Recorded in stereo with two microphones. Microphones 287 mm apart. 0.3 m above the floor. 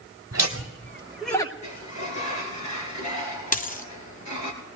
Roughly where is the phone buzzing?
I don't hear a phone buzzing.